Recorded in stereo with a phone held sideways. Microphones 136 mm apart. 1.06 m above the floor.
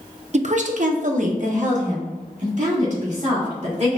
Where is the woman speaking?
50° right (ahead or behind), 0.5 m; by 4.0 s 55° right (ahead or behind), 2.5 m.